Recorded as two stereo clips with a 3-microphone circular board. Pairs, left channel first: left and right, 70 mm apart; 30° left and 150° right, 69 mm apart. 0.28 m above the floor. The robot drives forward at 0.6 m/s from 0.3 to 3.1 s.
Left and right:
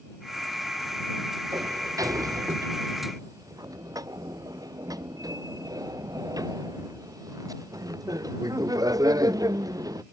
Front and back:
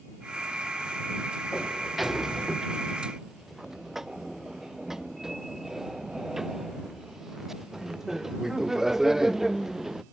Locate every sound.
1.5 s a sliding door: 60° right; by 10.0 s 65° right